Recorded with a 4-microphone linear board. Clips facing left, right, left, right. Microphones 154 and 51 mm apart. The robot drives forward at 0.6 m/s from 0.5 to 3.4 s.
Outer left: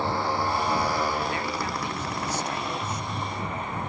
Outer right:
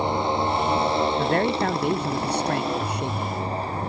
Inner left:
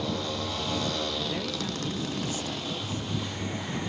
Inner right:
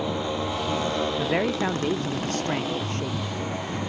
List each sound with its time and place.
0.0 s a motorcycle: 20° right (ahead or behind); by 3.9 s 35° right (ahead or behind)
1.2 s a man speaking: 55° right (ahead or behind); by 3.4 s 65° right (ahead or behind)